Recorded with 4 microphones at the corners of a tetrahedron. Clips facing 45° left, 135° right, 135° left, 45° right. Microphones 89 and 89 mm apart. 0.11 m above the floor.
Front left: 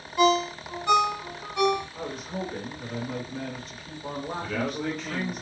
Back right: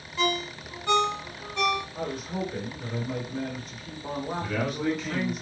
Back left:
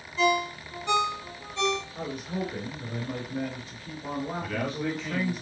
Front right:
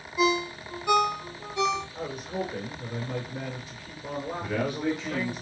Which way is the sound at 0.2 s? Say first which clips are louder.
Front left 7 dB, even; 10° left.